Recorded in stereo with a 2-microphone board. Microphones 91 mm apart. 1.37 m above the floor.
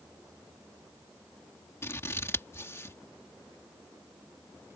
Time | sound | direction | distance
1.8 | scissors | 30° left (ahead or behind) | ?